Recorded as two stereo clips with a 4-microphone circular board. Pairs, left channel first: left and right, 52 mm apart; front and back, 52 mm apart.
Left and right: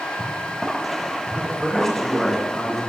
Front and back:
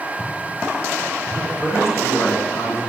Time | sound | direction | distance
1.3 | a man speaking | 5° left | 2.5 m